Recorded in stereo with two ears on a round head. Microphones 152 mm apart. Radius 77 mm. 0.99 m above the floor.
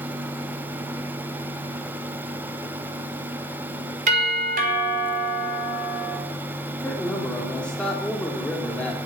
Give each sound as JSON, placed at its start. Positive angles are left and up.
{"t": 4.1, "sound": "a doorbell", "side_deg": -50, "distance_m": 4.5}
{"t": 6.8, "sound": "a man speaking", "side_deg": 5, "distance_m": 1.9}